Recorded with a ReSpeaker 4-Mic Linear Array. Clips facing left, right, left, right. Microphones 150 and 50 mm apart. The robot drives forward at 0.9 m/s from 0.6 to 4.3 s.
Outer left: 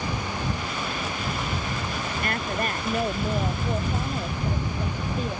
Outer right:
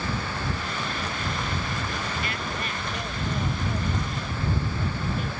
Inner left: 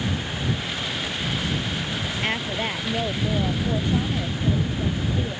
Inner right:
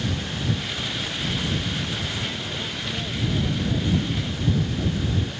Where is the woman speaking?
55° left (ahead or behind); by 5.4 s 35° left (ahead or behind).